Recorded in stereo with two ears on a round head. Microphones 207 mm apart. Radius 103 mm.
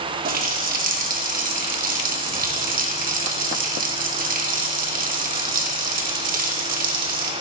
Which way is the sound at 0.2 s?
35° right (ahead or behind).